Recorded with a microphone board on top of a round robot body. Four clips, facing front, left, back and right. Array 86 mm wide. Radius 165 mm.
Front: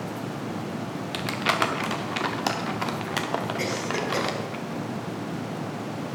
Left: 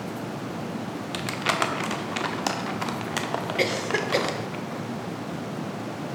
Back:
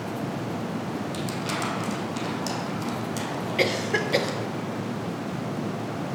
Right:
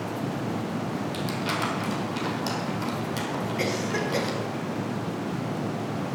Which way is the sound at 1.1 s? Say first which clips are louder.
Left 6 dB, front 3 dB; 40° left.